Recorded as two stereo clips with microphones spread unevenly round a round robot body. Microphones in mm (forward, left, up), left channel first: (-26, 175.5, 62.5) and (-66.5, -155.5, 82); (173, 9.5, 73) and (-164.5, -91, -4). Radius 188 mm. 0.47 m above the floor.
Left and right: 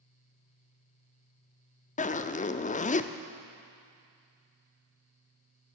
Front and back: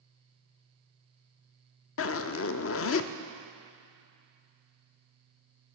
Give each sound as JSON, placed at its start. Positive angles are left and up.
{"t": 2.0, "sound": "a zipper", "azimuth_deg": 50, "distance_m": 0.6}